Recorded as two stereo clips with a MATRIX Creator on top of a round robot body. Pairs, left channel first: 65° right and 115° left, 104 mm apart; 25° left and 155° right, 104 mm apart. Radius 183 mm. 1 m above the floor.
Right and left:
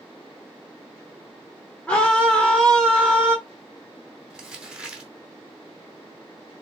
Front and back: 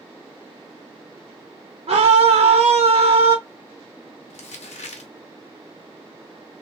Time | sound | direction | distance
1.9 | a scream | 140° right | 1.2 m
4.3 | crumpling | 30° left | 0.7 m